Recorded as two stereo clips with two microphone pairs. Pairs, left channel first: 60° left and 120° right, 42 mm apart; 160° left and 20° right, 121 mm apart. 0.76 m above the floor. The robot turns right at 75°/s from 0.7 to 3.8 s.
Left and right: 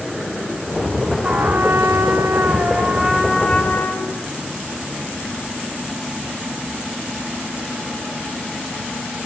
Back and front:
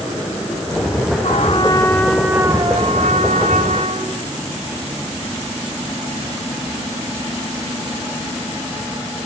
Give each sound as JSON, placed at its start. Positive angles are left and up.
{"t": 1.2, "sound": "a trumpet", "azimuth_deg": 180, "distance_m": 5.0}